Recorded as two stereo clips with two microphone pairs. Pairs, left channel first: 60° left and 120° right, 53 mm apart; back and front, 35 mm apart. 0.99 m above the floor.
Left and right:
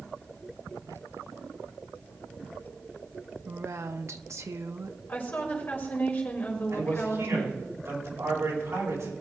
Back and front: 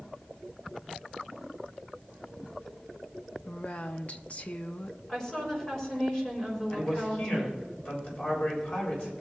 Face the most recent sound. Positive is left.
turn(degrees=-145)